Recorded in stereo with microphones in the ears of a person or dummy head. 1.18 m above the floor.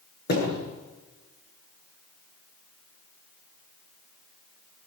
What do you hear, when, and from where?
0.3 s a thud: 55° left (ahead or behind), 9.5 m